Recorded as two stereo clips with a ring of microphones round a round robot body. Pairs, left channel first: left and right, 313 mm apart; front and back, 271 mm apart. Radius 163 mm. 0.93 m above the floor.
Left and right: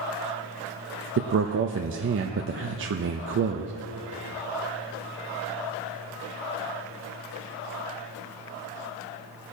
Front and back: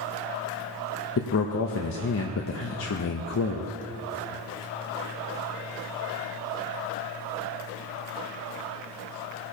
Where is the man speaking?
40° right, 0.6 m.